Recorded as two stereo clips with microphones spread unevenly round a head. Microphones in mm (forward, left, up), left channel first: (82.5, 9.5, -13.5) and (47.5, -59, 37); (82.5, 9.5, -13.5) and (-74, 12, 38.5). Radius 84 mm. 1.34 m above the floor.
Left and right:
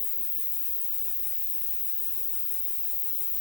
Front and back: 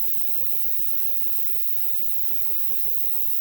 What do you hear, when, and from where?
0.0 s an insect: 135° left, 2.5 m